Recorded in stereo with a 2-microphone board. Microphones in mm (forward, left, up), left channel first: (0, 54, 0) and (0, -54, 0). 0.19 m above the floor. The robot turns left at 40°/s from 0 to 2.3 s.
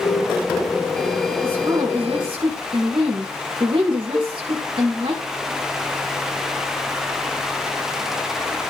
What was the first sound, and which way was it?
A woman speaking, 20° right.